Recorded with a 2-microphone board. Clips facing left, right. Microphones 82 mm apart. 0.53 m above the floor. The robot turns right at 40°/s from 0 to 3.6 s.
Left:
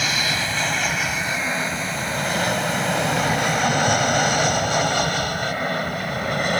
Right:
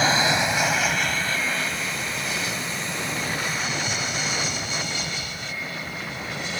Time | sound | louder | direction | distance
0.0 | an aircraft | right 4 dB | 35° right (ahead or behind) | ?